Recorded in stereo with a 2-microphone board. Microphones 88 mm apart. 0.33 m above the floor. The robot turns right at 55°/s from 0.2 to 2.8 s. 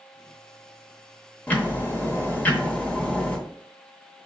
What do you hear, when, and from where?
1.5 s ticking: 20° left (ahead or behind), 0.8 m; by 3.4 s 15° left (ahead or behind), 0.8 m